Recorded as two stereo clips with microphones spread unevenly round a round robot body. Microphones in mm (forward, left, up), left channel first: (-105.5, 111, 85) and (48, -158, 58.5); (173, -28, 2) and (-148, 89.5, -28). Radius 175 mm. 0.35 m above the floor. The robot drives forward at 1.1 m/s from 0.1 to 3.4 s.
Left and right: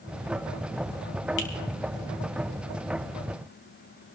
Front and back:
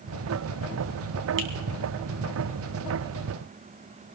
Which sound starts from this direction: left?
A finger snap, at 1.4 s.